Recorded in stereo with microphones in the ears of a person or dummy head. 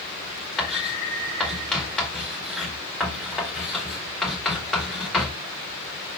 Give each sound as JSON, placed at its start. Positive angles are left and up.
{"t": 0.6, "sound": "writing", "side_deg": 0, "distance_m": 1.9}